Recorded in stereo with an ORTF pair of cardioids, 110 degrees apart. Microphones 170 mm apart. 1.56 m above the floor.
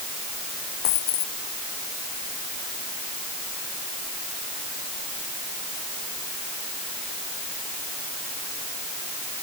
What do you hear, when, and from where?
0.8 s a dropped coin: 65° left